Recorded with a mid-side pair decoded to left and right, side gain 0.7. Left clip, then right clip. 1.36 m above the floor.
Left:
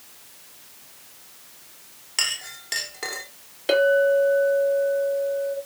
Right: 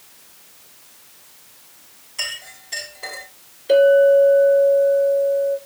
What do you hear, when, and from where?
2.2 s a clink: 55° left, 2.5 m
3.7 s a clink: 65° left, 2.5 m